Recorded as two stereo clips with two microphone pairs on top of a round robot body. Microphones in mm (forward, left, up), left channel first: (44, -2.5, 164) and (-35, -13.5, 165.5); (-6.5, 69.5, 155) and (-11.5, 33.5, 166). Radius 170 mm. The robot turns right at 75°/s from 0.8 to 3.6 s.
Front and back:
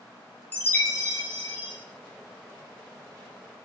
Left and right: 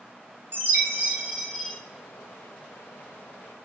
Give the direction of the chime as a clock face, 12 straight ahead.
2 o'clock.